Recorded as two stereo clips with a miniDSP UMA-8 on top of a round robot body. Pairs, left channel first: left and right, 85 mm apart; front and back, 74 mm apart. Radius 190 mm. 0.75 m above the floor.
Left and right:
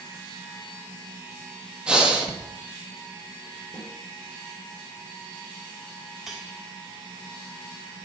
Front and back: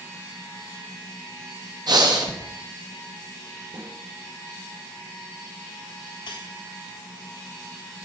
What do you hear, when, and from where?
1.9 s breathing: 170° right, 1.6 m
3.7 s a snare drum: 175° left, 3.5 m
6.3 s cutlery clinking: 5° right, 1.0 m